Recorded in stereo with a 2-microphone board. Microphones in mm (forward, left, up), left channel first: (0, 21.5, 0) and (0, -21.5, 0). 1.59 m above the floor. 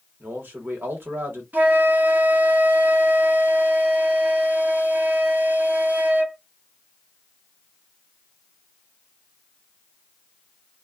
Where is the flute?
50° right (ahead or behind), 0.8 m.